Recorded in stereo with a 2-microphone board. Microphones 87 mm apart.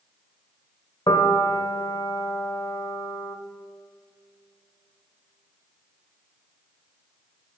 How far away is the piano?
About 1.0 m.